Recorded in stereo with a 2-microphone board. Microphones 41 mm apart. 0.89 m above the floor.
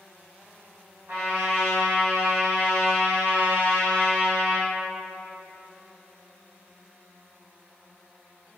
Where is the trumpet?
60° right (ahead or behind), 1.3 m.